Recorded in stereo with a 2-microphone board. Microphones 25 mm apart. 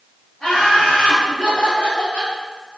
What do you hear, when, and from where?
0.4 s laughter: 10° left (ahead or behind), 1.8 m; by 2.3 s 65° left (ahead or behind), 2.5 m